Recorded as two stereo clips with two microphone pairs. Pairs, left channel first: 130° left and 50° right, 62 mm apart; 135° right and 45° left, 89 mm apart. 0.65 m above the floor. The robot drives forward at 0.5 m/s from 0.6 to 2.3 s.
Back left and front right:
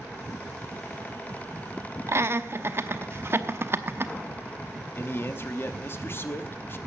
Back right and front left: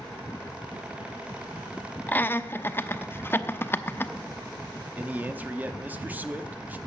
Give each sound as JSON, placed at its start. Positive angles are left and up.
{"t": 2.1, "sound": "laughter", "azimuth_deg": -65, "distance_m": 0.8}
{"t": 5.0, "sound": "a man speaking", "azimuth_deg": 105, "distance_m": 0.9}